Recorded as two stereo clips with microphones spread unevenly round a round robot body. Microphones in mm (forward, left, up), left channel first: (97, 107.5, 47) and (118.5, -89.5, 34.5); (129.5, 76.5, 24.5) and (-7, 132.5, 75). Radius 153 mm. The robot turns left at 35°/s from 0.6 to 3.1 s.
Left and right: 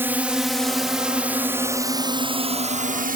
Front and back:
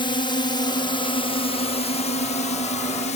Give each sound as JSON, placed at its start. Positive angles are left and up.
{"t": 0.0, "sound": "a drone", "azimuth_deg": -10}